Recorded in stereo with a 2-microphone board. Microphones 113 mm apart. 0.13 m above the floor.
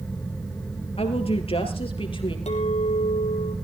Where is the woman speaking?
60° left (ahead or behind), 3 m; by 2.4 s 50° left (ahead or behind), 3.5 m.